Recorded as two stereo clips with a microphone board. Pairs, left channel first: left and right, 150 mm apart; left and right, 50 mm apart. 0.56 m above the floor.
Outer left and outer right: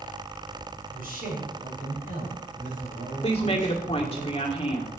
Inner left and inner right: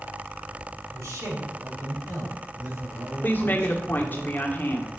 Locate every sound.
0.9 s a man speaking: 70° right (ahead or behind), 3.5 m; by 4.2 s 55° right (ahead or behind), 4 m
3.2 s a woman speaking: 40° left (ahead or behind), 1.7 m